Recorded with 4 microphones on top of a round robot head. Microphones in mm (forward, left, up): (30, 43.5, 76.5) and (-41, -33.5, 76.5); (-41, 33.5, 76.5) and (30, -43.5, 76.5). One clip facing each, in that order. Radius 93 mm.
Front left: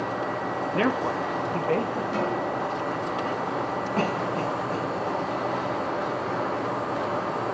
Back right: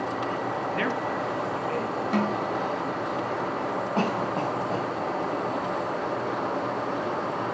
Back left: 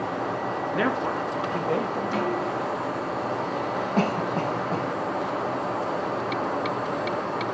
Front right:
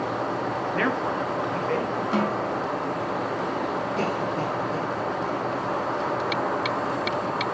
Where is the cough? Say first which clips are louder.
Even, back left 4 dB; 160° left, 4.5 m.